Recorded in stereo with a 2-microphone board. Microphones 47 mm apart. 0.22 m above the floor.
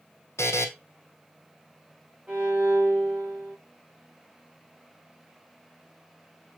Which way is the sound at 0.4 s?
80° left.